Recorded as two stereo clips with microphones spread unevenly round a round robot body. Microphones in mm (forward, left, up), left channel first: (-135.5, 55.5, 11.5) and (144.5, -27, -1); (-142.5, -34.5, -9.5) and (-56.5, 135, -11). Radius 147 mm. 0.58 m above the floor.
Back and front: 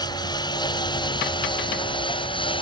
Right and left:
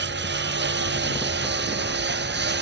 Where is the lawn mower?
85° left; by 2.6 s 90° left.